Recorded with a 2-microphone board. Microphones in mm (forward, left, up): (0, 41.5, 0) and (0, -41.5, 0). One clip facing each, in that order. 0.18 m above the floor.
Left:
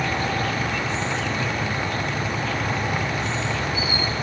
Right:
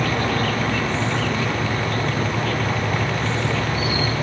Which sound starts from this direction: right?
An insect, at 0.0 s.